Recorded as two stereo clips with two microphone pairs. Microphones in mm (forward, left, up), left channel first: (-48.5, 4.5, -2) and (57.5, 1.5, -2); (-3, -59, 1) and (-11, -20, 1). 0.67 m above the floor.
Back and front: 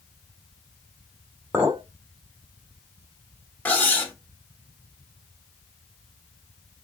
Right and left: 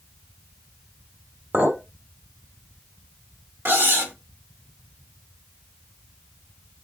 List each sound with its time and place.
1.5 s a clink: 75° left, 1.2 m
3.6 s cutlery clinking: 105° left, 1.1 m